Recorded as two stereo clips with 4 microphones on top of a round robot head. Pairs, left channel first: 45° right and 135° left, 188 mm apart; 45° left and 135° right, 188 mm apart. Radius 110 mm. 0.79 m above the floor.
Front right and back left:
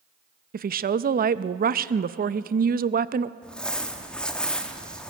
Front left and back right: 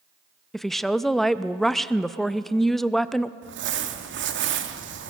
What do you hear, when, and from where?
0.5 s a woman speaking: 130° left, 0.6 m
3.4 s crumpling: 130° right, 1.5 m